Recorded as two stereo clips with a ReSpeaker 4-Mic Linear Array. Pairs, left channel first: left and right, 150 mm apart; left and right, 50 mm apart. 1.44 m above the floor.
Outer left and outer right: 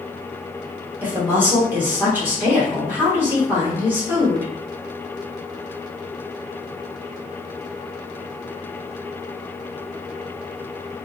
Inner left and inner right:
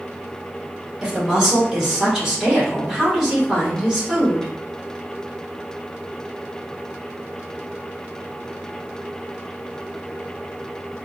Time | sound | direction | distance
1.0 | a woman speaking | 15° right (ahead or behind) | 1.5 m